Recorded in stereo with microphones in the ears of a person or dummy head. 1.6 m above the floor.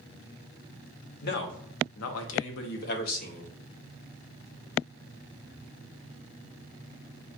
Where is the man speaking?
55° left (ahead or behind), 0.9 m; by 3.5 s 40° left (ahead or behind), 1.0 m.